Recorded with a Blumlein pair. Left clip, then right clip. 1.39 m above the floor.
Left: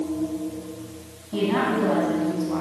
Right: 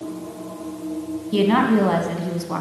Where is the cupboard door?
I don't hear a cupboard door.